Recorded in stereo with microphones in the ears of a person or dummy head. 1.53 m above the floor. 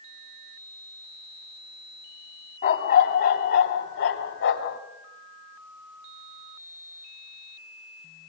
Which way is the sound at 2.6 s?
55° left (ahead or behind).